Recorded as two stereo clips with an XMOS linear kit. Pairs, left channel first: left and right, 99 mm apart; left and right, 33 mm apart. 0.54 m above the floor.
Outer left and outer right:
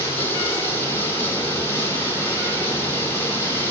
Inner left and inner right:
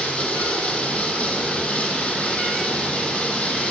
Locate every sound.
0.0 s running water: 25° left (ahead or behind), 6.5 m